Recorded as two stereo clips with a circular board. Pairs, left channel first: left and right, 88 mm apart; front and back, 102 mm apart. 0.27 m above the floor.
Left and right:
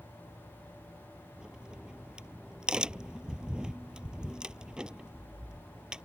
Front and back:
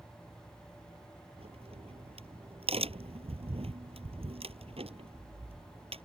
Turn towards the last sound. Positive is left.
turn(degrees=-170)